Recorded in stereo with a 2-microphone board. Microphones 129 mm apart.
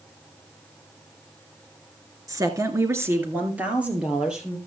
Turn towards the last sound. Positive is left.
turn(degrees=-5)  # may be behind; listen again after turning